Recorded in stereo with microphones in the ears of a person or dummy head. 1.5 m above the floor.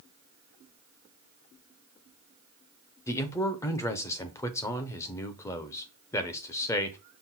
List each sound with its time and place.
3.1 s a man speaking: 20° left (ahead or behind), 0.6 m